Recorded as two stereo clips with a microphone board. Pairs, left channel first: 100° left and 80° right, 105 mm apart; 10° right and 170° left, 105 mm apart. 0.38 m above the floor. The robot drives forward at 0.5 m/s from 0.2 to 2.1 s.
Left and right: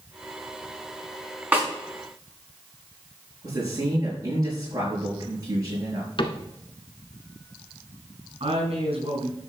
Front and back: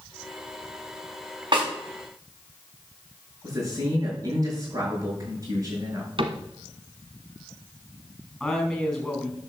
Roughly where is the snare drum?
Behind right.